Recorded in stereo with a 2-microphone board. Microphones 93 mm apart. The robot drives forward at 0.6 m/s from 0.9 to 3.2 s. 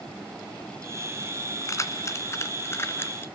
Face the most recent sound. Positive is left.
turn(degrees=25)  # may be behind; listen again after turning